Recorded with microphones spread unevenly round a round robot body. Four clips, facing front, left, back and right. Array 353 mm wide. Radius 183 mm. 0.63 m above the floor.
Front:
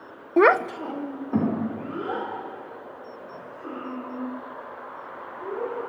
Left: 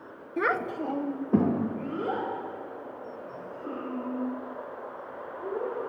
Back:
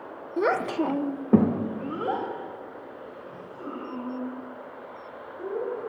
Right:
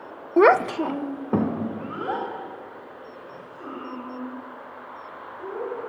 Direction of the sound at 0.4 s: 45° right.